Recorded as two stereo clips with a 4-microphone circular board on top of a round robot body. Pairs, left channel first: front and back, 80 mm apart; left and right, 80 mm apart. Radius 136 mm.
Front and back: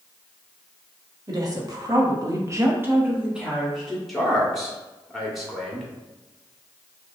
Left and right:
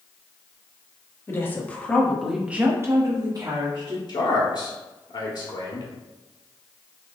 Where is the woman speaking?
145° left, 1.6 m; by 4.0 s 90° right, 1.7 m.